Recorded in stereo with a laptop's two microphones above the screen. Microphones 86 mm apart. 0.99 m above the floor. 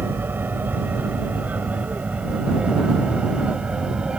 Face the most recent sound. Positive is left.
turn(degrees=-10)  # may be behind; listen again after turning